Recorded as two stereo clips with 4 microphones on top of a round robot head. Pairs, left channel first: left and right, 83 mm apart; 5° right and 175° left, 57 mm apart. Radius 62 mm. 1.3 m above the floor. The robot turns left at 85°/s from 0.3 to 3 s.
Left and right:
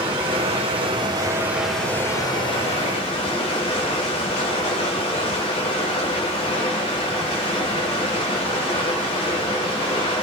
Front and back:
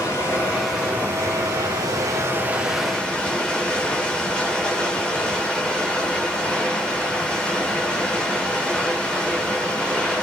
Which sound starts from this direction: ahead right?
Running water, at 0.0 s.